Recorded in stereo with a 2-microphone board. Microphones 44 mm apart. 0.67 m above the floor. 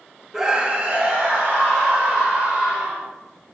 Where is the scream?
10° right (ahead or behind), 0.5 m; by 3.0 s 30° right (ahead or behind), 1.9 m.